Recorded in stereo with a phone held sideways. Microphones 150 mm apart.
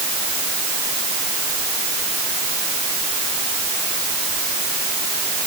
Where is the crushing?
I don't hear crushing.